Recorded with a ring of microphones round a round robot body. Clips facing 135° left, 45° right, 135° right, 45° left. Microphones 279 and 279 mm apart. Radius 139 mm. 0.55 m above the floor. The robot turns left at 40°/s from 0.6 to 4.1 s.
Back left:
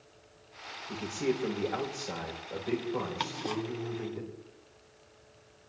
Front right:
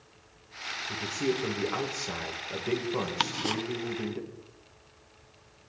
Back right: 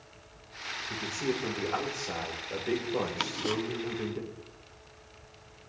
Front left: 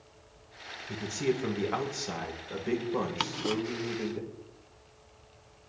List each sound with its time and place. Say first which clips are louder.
0.9 s a man speaking: front right 1 dB, front left 3 dB; 55° left, 2.5 m; by 4.2 s 75° right, 2.5 m
3.2 s ticking: front right 2 dB, front left 1 dB; 35° right, 0.5 m; by 3.6 s 50° right, 0.5 m